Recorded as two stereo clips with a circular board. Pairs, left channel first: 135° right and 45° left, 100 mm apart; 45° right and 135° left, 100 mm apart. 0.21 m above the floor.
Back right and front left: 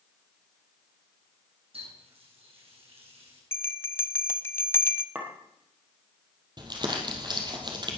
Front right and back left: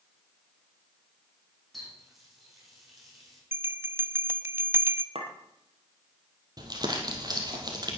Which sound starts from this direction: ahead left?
A running tap, at 1.7 s.